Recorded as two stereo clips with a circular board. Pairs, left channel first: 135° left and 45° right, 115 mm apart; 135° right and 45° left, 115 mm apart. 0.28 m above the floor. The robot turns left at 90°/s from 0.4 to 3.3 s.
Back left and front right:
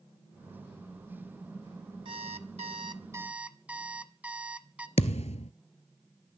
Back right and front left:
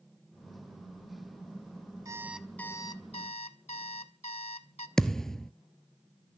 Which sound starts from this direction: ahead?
An alarm clock, at 2.0 s.